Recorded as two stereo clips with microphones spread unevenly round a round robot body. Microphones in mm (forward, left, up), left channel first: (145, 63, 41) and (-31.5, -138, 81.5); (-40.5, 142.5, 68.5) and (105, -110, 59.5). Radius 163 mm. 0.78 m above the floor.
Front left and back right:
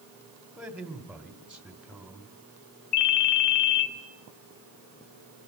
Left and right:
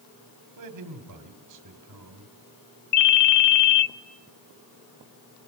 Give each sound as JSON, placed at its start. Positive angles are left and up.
{"t": 0.6, "sound": "a man speaking", "azimuth_deg": -45, "distance_m": 2.5}
{"t": 2.9, "sound": "a ringtone", "azimuth_deg": 90, "distance_m": 0.6}